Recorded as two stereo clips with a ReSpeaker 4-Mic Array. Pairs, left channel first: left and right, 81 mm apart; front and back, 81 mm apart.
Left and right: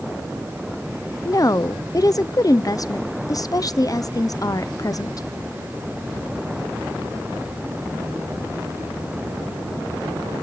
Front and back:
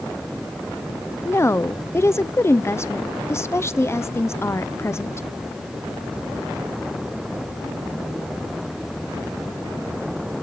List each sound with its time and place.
1.2 s a woman speaking: 55° left, 0.5 m